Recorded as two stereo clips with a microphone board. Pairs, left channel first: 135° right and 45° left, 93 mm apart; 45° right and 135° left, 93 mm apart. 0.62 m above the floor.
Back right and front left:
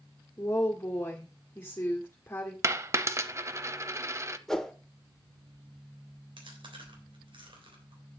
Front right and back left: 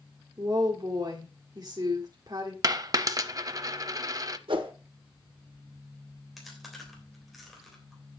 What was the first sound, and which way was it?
A woman speaking, 170° left.